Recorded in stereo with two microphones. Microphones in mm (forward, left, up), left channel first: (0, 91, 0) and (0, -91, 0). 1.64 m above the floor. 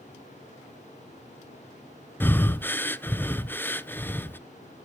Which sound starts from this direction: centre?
Breathing, at 2.2 s.